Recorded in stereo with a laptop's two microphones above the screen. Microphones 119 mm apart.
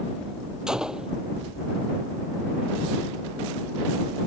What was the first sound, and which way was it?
A gunshot, 5° right (ahead or behind).